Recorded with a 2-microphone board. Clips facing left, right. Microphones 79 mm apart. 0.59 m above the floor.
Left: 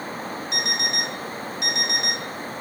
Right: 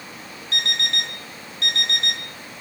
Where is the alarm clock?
15° left (ahead or behind), 1.4 m.